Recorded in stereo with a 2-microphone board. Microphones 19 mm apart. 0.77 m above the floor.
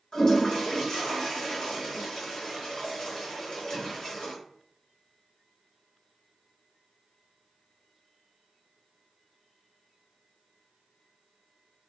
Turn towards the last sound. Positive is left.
turn(degrees=35)  # may be behind; listen again after turning